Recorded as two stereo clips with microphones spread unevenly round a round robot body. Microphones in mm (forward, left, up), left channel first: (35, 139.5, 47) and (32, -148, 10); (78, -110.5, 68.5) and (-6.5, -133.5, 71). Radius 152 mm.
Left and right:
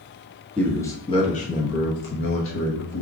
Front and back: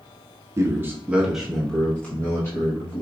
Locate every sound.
0.6 s a man speaking: 175° right, 0.9 m; by 3.0 s 55° left, 1.3 m